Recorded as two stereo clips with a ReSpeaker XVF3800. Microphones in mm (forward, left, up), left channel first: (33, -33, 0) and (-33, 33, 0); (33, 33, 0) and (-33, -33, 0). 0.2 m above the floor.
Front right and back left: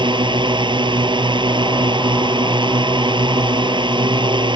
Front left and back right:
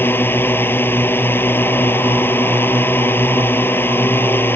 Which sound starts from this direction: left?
A drone, at 0.0 s.